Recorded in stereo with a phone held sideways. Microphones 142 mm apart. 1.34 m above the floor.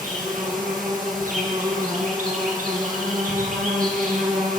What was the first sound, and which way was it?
An insect, 75° right (ahead or behind).